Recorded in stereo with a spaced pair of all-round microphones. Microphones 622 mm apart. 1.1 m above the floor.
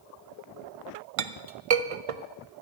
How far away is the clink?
About 0.6 m.